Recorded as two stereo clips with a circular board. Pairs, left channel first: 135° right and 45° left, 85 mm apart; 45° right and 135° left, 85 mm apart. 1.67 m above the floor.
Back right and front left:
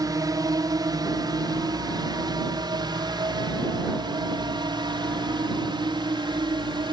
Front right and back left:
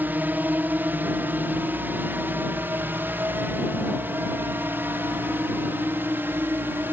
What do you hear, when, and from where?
0.0 s a drone: 70° left